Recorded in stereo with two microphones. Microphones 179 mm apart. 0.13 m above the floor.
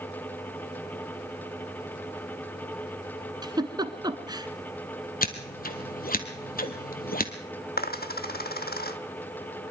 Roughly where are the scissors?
Left.